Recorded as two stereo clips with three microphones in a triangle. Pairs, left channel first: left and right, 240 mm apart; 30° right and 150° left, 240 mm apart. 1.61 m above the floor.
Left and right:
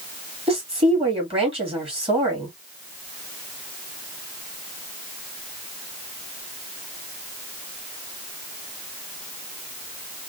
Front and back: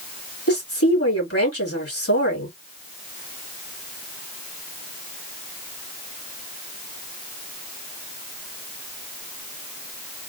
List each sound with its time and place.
0.5 s a woman speaking: 25° right, 3 m